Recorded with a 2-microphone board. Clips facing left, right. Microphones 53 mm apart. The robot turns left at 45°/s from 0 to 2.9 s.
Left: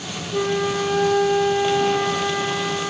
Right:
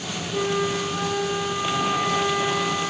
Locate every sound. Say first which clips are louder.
0.3 s a flute: left 3 dB; 170° left, 3.5 m; by 2.9 s 50° left, 3.5 m